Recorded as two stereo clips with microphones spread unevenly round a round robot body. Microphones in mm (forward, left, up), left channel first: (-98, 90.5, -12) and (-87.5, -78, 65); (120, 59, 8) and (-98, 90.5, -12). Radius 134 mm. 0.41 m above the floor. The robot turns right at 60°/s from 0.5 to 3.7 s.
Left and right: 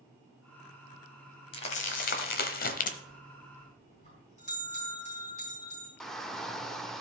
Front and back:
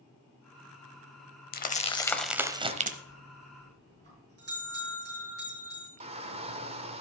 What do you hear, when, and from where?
1.5 s crumpling: 40° left, 1.0 m; by 3.0 s 125° left, 1.0 m
3.1 s a bell: 95° left, 5.5 m; by 5.9 s 135° left, 5.5 m
6.0 s a shout: 140° left, 0.9 m